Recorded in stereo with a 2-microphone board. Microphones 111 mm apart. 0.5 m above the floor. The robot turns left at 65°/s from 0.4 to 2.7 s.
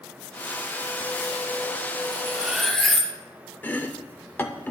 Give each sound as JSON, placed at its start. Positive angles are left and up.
{"t": 2.1, "sound": "cutlery clinking", "azimuth_deg": -150, "distance_m": 0.8}
{"t": 3.6, "sound": "chopping", "side_deg": 15, "distance_m": 0.5}